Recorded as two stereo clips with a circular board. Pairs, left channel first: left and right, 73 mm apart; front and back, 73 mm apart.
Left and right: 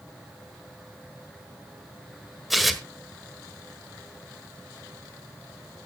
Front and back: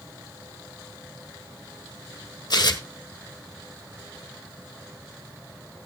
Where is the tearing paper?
Straight ahead, 1.3 m.